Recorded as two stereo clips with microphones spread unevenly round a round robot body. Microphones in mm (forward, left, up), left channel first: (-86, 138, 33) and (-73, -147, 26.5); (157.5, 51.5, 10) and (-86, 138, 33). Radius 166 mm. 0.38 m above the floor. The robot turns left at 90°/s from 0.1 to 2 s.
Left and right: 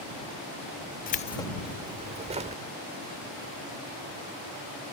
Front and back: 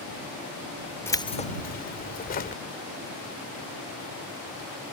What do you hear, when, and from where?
1.1 s keys jangling: 50° left; by 2.6 s 35° right